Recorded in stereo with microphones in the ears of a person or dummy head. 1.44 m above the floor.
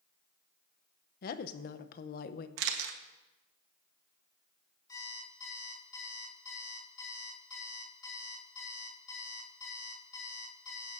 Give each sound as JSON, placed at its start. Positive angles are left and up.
{"t": 1.2, "sound": "a woman speaking", "side_deg": 55, "distance_m": 0.8}
{"t": 2.6, "sound": "a camera shutter", "side_deg": -70, "distance_m": 1.3}
{"t": 4.9, "sound": "an alarm clock", "side_deg": 20, "distance_m": 3.0}